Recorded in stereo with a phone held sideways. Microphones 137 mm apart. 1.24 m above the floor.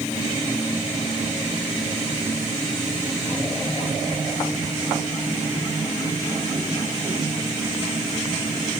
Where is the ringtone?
I don't hear a ringtone.